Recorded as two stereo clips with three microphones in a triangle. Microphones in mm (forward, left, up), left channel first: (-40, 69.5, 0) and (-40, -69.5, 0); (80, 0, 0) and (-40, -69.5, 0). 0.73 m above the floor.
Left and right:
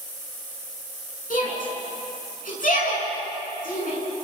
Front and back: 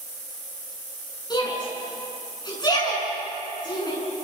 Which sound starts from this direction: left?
A shout, at 1.3 s.